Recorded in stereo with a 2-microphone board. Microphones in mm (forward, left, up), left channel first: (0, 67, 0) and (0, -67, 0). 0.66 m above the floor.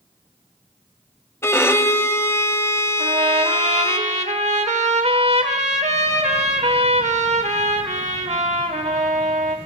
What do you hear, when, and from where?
1.4 s a violin: 20° left (ahead or behind), 0.8 m
3.0 s a trumpet: 60° right (ahead or behind), 1.1 m